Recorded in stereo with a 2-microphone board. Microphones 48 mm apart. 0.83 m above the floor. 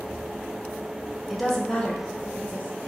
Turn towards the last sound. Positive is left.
turn(degrees=35)  # may be behind; listen again after turning